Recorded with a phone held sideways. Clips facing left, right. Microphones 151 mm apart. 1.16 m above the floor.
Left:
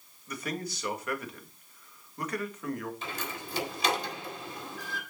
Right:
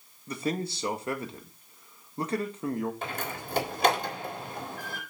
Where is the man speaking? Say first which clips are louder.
Right 5 dB; 25° right (ahead or behind), 1.7 m.